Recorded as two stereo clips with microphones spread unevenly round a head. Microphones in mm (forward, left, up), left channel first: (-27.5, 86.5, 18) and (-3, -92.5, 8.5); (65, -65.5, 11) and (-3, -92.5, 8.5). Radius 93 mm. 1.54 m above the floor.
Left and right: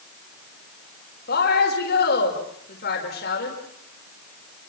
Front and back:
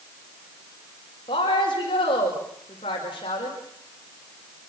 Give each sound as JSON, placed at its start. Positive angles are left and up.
{"t": 1.3, "sound": "a woman speaking", "azimuth_deg": 60, "distance_m": 6.0}